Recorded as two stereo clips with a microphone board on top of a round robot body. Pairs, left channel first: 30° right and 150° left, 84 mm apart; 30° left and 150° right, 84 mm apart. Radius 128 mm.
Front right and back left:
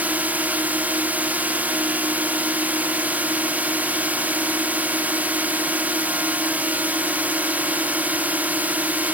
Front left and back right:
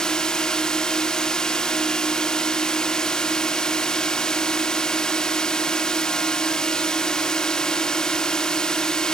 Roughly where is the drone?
Left.